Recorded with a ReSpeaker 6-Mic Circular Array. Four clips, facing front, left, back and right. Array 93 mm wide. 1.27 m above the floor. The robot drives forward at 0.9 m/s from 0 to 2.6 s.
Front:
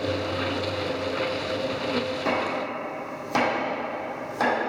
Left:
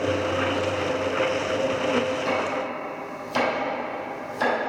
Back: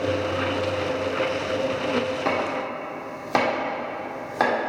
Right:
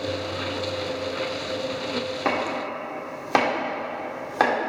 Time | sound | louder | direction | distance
2.2 | chopping | even, back 1 dB | 105° right | 2 m